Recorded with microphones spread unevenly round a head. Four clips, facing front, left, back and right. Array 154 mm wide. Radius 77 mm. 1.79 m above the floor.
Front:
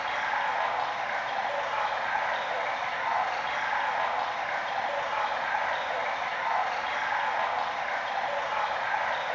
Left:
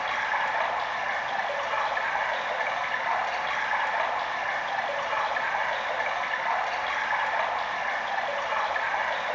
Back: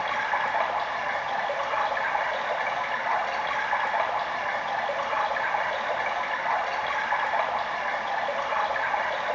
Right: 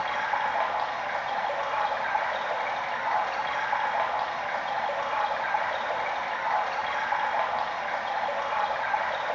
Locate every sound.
0.0 s running water: 140° right, 1.4 m